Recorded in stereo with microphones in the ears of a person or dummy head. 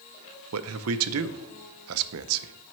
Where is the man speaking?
80° right, 0.6 m.